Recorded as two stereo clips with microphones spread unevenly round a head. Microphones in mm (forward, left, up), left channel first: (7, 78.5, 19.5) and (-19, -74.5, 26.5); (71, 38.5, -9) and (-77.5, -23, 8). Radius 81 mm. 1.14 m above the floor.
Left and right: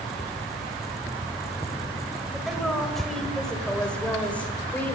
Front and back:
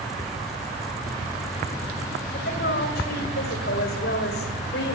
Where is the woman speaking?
10° right, 6 m; by 5.0 s straight ahead, 5 m.